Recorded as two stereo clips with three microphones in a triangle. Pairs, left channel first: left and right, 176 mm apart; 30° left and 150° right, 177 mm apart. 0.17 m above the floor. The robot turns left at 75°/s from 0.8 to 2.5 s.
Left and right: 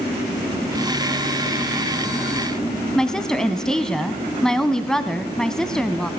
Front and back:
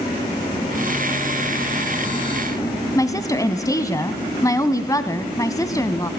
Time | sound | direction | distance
3.0 | a woman speaking | 10° left | 1.0 m